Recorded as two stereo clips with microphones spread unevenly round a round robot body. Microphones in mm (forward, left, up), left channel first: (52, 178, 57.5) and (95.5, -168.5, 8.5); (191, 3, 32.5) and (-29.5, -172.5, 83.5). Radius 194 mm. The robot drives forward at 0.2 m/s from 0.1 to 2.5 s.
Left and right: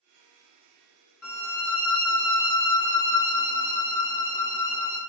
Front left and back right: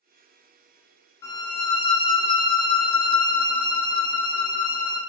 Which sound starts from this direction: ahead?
A violin, at 1.2 s.